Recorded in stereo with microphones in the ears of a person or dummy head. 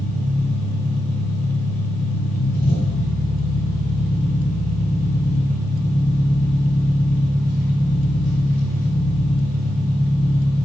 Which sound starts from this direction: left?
An engine running, at 0.0 s.